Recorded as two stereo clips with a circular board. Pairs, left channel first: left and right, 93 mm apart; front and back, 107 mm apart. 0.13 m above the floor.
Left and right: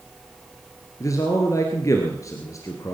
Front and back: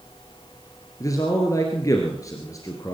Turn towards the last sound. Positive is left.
turn(degrees=50)